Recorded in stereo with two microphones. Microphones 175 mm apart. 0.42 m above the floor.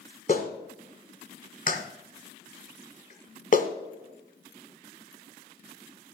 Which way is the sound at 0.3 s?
55° left (ahead or behind).